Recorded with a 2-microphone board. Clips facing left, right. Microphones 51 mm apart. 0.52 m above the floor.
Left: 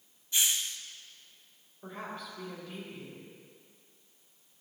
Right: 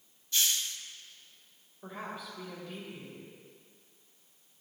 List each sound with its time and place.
0.3 s a hiss: 15° left (ahead or behind), 0.5 m
1.8 s a woman speaking: 5° right (ahead or behind), 2.5 m